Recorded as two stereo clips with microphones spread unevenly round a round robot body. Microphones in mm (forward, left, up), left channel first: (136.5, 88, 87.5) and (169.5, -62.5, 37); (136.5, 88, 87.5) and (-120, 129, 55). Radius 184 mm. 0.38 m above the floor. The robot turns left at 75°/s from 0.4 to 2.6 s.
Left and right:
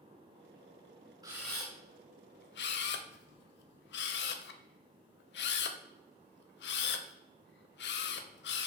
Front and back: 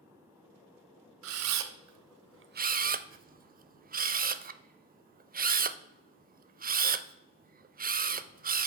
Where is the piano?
I don't hear a piano.